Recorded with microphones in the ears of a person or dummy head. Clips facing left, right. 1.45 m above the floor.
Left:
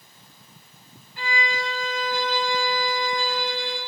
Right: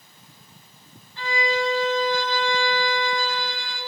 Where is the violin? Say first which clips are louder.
Right 5 dB; 10° left (ahead or behind), 2.5 m.